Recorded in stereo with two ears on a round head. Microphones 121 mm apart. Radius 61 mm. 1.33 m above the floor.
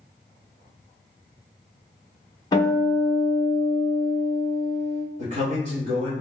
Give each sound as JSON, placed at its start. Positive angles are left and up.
{"t": 2.5, "sound": "a guitar", "side_deg": 30, "distance_m": 1.0}
{"t": 5.2, "sound": "a man speaking", "side_deg": -60, "distance_m": 0.9}